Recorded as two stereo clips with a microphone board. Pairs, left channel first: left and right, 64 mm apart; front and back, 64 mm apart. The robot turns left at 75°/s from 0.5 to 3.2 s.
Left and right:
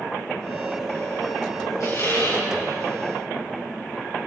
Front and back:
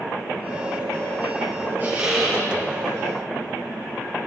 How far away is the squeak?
About 6.5 m.